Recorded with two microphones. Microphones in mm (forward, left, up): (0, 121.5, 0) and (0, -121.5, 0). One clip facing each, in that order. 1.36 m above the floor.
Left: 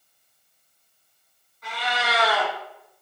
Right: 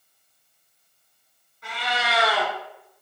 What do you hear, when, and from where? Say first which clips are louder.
1.6 s a cat meowing: left 1 dB; 25° right (ahead or behind), 1.7 m